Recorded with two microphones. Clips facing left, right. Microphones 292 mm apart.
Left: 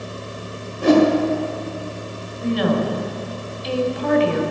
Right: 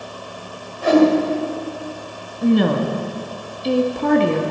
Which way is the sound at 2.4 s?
50° right (ahead or behind).